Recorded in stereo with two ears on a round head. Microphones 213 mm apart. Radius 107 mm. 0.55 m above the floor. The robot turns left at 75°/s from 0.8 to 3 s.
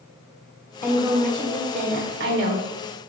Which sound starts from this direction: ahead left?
A woman speaking, at 0.8 s.